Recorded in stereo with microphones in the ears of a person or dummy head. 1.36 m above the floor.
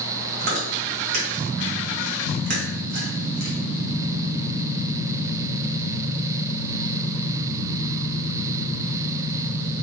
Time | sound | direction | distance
0.4 | chewing | 50° right (ahead or behind) | 1.9 m